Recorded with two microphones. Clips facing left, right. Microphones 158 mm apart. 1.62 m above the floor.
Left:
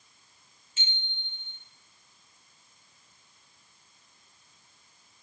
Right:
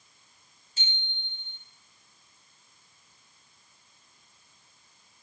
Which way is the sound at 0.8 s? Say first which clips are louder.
Right 1 dB; 40° right (ahead or behind).